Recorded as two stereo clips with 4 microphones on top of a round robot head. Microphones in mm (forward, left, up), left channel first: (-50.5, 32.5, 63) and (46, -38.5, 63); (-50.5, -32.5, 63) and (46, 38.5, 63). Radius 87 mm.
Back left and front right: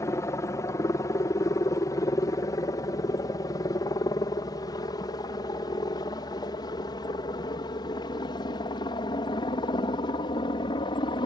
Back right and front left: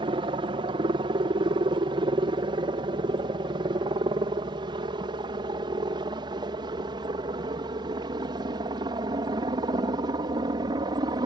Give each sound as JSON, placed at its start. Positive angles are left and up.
{"t": 0.0, "sound": "a helicopter", "azimuth_deg": 80}